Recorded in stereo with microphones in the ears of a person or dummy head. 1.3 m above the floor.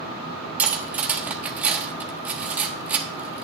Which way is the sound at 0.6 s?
Centre (ahead or behind).